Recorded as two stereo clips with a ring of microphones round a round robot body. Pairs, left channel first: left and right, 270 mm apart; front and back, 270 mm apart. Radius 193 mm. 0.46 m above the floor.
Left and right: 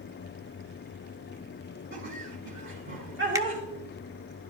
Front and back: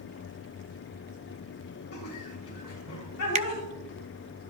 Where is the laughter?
45° right, 3 m.